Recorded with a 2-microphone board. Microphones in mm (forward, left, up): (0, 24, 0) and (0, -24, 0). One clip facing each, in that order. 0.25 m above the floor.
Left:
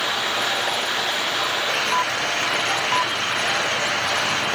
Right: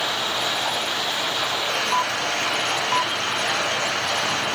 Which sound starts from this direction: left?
Running water, at 0.0 s.